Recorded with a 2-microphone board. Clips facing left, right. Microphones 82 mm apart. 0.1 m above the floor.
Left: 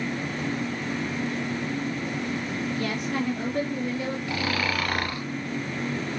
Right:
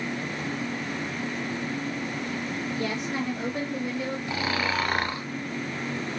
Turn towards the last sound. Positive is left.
turn(degrees=-25)  # may be behind; listen again after turning